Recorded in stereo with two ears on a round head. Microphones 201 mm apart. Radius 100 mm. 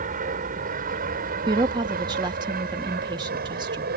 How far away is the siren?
No siren in this recording.